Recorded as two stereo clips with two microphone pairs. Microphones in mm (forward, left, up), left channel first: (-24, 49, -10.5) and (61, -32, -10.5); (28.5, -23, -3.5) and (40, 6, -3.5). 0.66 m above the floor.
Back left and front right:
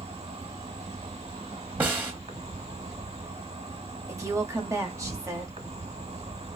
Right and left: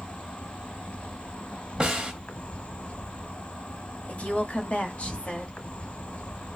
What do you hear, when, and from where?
0.0 s an insect: 70° right, 0.8 m
1.8 s a snare drum: 25° left, 0.9 m
4.1 s a woman speaking: 90° right, 1.1 m